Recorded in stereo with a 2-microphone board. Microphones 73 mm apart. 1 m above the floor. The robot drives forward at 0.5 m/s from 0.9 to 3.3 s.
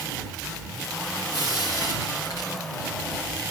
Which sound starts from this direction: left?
Frying, at 1.3 s.